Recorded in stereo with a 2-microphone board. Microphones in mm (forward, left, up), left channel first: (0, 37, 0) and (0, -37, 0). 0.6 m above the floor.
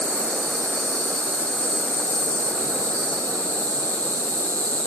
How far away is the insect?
About 6.5 m.